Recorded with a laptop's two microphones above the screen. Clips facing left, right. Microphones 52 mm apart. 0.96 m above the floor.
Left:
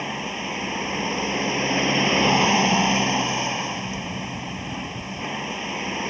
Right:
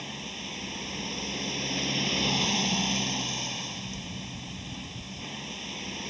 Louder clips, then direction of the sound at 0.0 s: Left 10 dB; 50° left (ahead or behind).